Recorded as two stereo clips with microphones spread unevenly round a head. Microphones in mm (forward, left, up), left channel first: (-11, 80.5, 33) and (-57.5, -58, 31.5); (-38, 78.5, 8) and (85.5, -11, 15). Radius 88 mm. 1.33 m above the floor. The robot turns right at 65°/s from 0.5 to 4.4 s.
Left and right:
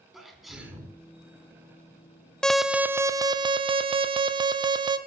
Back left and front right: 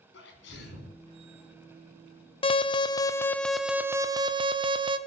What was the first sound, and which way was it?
A sneeze, 160° left.